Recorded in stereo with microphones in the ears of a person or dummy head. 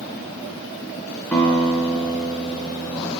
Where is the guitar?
15° left (ahead or behind), 1.7 m.